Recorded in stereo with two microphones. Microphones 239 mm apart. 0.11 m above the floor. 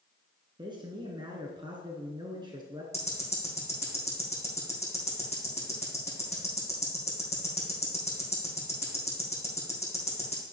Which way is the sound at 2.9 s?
25° left (ahead or behind).